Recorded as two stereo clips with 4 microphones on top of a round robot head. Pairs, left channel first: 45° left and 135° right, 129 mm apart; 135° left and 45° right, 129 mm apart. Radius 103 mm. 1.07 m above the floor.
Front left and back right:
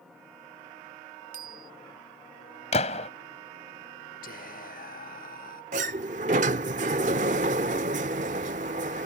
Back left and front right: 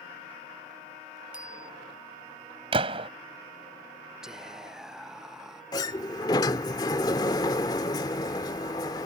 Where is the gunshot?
5° left.